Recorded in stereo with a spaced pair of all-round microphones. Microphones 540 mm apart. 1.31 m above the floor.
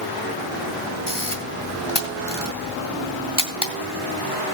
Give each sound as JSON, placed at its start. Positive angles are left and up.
{"t": 1.1, "sound": "a camera shutter", "side_deg": 45, "distance_m": 2.0}